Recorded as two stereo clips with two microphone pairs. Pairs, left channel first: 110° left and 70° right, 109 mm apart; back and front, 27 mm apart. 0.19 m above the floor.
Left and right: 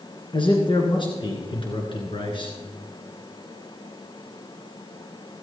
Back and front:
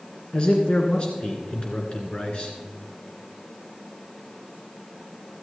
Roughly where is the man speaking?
Behind left.